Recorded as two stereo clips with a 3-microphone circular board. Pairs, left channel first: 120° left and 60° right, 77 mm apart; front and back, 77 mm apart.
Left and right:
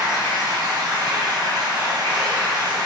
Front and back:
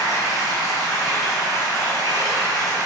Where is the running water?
40° right, 1.3 m.